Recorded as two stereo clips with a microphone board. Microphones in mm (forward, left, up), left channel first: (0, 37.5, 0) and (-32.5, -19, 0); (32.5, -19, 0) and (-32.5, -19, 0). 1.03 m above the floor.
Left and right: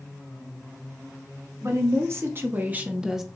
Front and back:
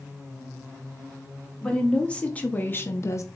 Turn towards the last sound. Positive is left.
turn(degrees=-30)